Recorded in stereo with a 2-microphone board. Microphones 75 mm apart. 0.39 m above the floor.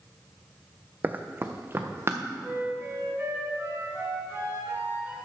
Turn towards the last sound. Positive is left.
turn(degrees=-30)  # may be behind; listen again after turning